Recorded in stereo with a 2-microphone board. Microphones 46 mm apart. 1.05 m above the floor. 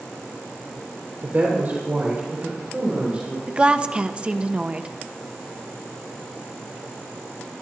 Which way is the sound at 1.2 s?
45° right (ahead or behind).